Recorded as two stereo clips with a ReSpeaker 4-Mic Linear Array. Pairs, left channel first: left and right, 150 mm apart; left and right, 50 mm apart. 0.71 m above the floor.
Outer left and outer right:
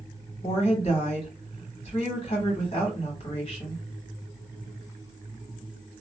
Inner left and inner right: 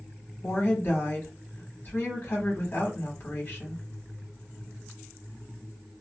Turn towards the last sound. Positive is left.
turn(degrees=40)  # may be behind; listen again after turning